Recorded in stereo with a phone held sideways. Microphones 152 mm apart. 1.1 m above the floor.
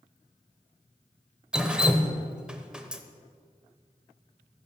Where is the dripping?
5° right (ahead or behind), 0.9 m.